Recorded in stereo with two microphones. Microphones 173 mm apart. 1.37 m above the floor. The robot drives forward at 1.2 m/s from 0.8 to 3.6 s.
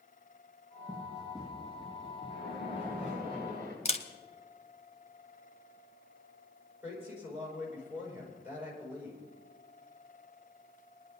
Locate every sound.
0.9 s running footsteps: 5° right (ahead or behind), 3.5 m
2.3 s a splash: 75° right (ahead or behind), 6.5 m; by 3.8 s 60° right (ahead or behind), 7.5 m
3.9 s a camera shutter: 40° left (ahead or behind), 1.0 m
6.8 s a woman speaking: 10° right (ahead or behind), 6 m